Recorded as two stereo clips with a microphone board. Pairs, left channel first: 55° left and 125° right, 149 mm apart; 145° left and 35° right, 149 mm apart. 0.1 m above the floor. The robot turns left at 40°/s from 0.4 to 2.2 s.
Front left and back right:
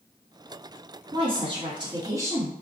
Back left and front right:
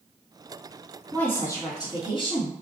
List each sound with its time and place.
1.1 s a woman speaking: 140° right, 1.9 m; by 2.6 s 175° left, 1.9 m